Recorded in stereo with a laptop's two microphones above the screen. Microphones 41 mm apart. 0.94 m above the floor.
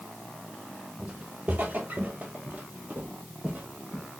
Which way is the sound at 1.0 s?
40° right (ahead or behind).